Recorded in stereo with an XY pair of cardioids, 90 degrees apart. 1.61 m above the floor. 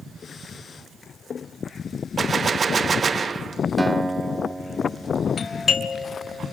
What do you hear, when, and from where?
2.2 s a gunshot: 40° right, 0.6 m
3.8 s a guitar: 15° right, 1.2 m
5.4 s a doorbell: 50° left, 2.5 m